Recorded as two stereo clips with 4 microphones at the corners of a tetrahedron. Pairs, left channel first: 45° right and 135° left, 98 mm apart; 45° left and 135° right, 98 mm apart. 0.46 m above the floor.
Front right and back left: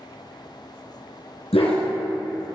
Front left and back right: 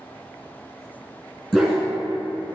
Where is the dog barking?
45° right, 2.5 m; by 2.5 s 20° right, 3.5 m.